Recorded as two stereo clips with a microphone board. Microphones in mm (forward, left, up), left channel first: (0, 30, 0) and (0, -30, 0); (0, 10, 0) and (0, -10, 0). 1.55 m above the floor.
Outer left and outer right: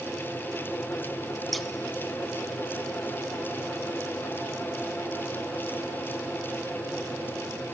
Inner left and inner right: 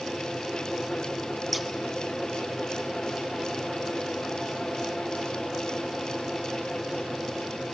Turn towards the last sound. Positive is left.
turn(degrees=0)  # may be behind; listen again after turning